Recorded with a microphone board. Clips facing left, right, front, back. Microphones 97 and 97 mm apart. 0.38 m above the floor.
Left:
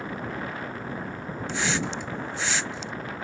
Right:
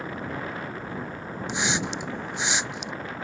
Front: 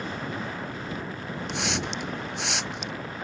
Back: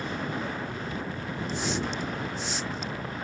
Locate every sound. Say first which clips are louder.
1.5 s a hiss: even, even; 20° right